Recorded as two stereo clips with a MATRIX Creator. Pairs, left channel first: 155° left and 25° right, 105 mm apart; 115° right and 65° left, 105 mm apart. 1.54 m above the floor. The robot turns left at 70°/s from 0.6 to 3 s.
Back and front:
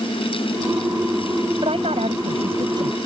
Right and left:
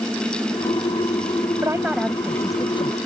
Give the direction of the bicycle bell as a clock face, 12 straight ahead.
No bicycle bell in this recording.